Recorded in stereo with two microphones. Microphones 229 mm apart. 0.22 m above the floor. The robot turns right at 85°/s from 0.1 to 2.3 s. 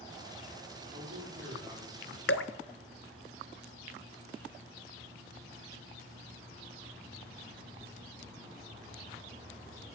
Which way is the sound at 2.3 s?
85° left.